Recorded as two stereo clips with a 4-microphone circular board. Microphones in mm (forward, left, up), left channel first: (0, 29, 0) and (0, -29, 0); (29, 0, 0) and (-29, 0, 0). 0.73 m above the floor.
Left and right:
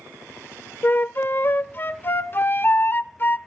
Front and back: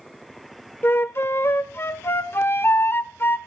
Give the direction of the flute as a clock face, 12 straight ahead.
11 o'clock.